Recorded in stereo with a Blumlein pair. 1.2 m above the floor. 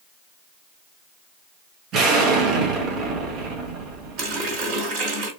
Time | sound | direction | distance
1.9 | an explosion | 30° right | 1.2 m
4.2 | a running tap | 40° right | 2 m